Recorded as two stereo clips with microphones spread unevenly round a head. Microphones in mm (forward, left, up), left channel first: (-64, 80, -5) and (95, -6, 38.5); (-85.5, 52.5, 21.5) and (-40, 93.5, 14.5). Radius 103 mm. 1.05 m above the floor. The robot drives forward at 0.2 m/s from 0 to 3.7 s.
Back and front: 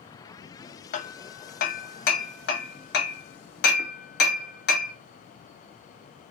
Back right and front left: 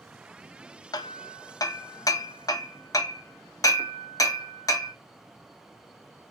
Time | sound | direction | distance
0.9 | hammering | 155° right | 0.6 m